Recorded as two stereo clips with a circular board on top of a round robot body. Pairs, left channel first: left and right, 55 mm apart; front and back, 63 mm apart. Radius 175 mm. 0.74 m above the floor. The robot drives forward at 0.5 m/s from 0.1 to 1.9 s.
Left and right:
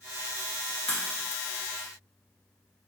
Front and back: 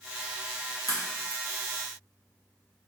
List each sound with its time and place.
0.9 s a crack: 160° left, 1.5 m; by 1.4 s 165° left, 1.7 m